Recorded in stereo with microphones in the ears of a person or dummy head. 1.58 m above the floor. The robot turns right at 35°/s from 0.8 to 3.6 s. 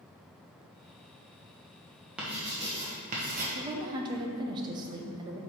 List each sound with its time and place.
2.2 s writing: 175° right, 1.2 m; by 3.5 s 130° right, 1.2 m
3.5 s a woman speaking: 30° right (ahead or behind), 0.9 m; by 5.4 s 25° right (ahead or behind), 0.9 m